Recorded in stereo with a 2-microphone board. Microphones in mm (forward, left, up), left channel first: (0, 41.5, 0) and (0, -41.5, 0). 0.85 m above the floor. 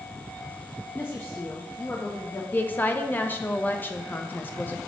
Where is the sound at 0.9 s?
25° left (ahead or behind), 0.8 m.